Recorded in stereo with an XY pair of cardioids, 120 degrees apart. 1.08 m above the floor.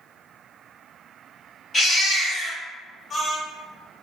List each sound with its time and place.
1.7 s a baby crying: 25° left, 1.7 m